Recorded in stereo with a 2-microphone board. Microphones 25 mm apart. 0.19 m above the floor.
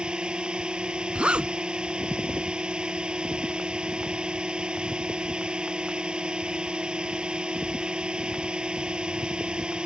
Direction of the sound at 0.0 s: 45° right (ahead or behind).